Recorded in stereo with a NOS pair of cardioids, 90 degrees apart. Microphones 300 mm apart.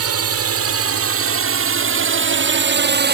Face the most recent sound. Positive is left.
turn(degrees=-40)